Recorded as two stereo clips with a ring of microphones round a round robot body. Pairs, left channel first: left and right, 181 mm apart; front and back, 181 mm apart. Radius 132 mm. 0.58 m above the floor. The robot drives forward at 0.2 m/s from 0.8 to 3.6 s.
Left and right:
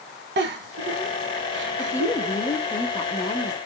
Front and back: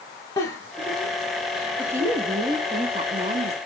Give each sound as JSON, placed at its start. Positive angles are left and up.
{"t": 0.4, "sound": "a giggle", "azimuth_deg": -80, "distance_m": 0.8}
{"t": 1.8, "sound": "a woman speaking", "azimuth_deg": 125, "distance_m": 0.7}